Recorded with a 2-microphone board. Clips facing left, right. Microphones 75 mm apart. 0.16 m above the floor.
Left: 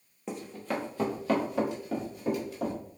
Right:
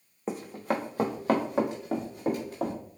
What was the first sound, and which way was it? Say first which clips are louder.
Running footsteps: right 4 dB; 40° right (ahead or behind).